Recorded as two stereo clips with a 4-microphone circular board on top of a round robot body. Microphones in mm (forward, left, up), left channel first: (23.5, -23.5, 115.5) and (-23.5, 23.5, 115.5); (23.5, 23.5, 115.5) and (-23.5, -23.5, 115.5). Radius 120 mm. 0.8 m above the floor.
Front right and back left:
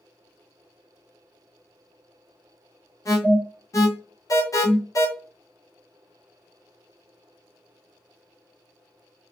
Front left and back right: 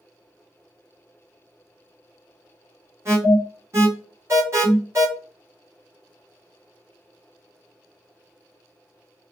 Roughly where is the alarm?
Right.